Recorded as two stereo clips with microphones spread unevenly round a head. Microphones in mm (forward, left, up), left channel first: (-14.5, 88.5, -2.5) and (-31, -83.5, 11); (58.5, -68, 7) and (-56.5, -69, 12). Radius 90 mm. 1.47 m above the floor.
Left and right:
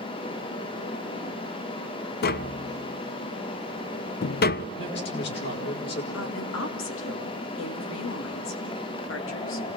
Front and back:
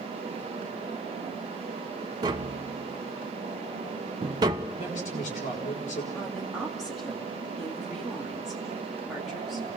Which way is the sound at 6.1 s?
90° left.